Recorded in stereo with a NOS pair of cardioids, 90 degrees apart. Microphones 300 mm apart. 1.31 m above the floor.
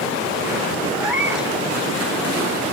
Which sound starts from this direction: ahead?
A cat meowing, at 0.9 s.